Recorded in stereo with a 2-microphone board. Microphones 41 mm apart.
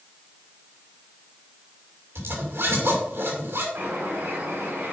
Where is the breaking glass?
No breaking glass in this recording.